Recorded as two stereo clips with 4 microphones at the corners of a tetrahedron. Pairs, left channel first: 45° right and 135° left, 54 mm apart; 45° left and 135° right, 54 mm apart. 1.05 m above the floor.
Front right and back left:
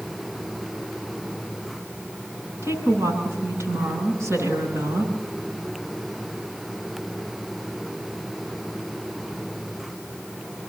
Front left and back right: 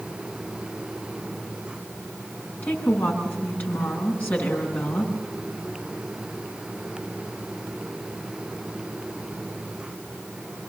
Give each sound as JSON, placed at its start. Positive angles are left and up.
{"t": 2.6, "sound": "a woman speaking", "azimuth_deg": 100, "distance_m": 9.5}